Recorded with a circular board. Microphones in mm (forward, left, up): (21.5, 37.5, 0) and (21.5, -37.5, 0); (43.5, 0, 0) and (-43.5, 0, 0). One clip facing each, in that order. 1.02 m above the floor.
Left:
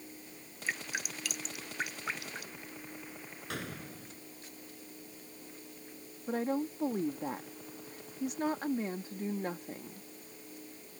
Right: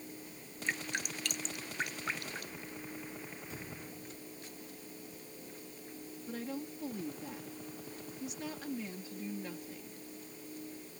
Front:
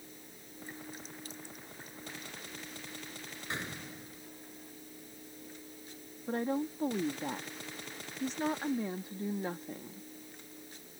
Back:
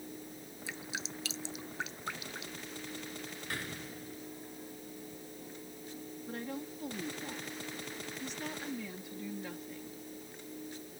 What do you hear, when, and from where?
0.7 s dripping: 175° left
3.5 s a gunshot: 70° left
6.3 s a woman speaking: 50° left